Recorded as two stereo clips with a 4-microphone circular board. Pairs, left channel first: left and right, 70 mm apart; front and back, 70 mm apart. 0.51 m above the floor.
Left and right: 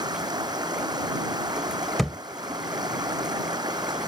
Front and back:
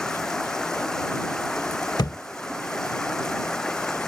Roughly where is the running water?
Right.